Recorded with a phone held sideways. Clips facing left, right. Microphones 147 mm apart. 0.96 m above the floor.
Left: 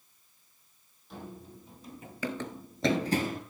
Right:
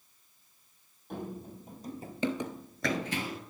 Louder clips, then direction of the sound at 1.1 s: Right 5 dB; 55° right (ahead or behind).